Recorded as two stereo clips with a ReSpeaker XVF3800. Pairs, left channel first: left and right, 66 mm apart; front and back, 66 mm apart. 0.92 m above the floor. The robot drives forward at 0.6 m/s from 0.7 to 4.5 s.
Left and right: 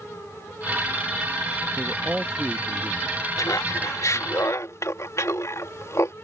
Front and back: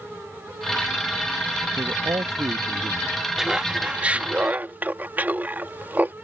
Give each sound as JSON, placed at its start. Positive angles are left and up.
{"t": 1.8, "sound": "a man speaking", "azimuth_deg": -165}
{"t": 3.4, "sound": "laughter", "azimuth_deg": 100}